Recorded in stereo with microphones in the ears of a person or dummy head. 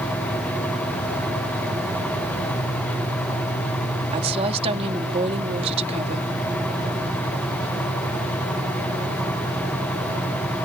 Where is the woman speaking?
30° right (ahead or behind).